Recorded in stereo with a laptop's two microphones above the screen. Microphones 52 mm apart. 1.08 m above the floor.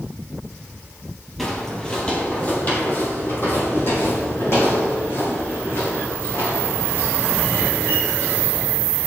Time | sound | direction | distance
1.4 | footsteps | centre (ahead or behind) | 1.3 m